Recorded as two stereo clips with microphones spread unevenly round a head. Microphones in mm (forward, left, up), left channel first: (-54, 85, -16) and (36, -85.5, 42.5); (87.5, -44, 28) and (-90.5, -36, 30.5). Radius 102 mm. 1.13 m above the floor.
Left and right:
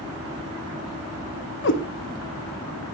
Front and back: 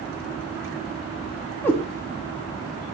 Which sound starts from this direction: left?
A cat meowing, at 1.6 s.